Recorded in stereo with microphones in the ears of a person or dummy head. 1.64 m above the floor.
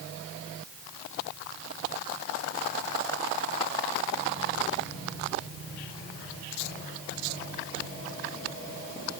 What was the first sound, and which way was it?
Only background noise.